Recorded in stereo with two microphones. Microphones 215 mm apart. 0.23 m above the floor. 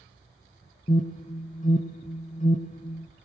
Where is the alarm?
35° left (ahead or behind), 1.7 m.